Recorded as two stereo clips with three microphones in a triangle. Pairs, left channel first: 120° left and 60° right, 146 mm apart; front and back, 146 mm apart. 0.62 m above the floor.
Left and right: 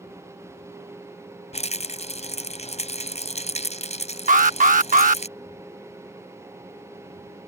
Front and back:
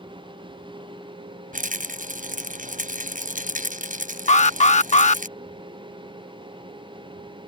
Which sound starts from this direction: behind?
A rattle, at 1.5 s.